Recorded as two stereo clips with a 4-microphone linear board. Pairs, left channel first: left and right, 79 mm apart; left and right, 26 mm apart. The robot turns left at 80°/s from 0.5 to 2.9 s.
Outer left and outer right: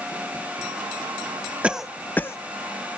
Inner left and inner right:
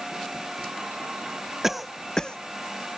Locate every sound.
1.6 s a cough: 15° right (ahead or behind), 0.6 m; by 2.4 s 35° left (ahead or behind), 0.6 m